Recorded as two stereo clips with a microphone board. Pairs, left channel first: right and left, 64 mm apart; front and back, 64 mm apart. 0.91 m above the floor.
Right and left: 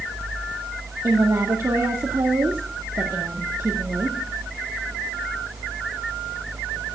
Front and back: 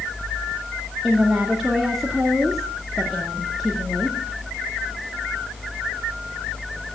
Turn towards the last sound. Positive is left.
turn(degrees=95)